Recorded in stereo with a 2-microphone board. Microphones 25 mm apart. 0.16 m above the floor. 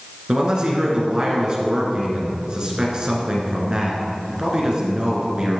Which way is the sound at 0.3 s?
35° right (ahead or behind).